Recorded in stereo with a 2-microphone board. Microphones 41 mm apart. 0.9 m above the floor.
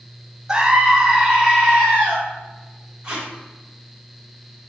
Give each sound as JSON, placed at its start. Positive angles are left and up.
{"t": 0.5, "sound": "a scream", "side_deg": -20, "distance_m": 0.5}
{"t": 3.0, "sound": "tape being pulled", "side_deg": -25, "distance_m": 0.9}